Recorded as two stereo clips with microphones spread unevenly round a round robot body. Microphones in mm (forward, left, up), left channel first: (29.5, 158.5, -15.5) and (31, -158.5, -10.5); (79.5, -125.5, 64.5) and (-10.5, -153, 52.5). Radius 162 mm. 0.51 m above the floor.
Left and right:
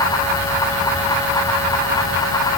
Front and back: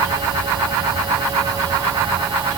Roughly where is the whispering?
No whispering in this recording.